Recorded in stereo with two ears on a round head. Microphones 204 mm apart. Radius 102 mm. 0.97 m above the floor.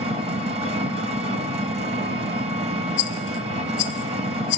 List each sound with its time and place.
0.0 s an engine running: 25° right (ahead or behind), 0.7 m
3.0 s a rattle: 50° left (ahead or behind), 0.7 m